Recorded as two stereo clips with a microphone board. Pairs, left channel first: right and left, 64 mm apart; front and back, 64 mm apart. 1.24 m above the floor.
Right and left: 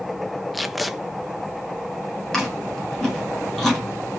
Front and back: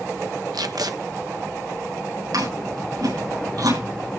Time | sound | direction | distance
0.5 | tape being pulled | straight behind | 1.2 m
2.3 | chewing | 175° right | 9 m